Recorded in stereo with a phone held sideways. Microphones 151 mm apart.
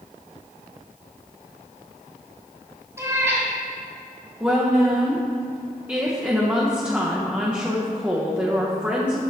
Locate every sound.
3.0 s a cat meowing: 20° right (ahead or behind), 1.8 m
4.4 s a woman speaking: 10° right (ahead or behind), 0.7 m